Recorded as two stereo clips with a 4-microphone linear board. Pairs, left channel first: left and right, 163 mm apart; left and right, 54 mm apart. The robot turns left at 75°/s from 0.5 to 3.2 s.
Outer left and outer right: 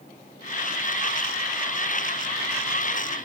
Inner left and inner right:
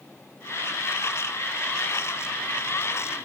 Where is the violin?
I don't hear a violin.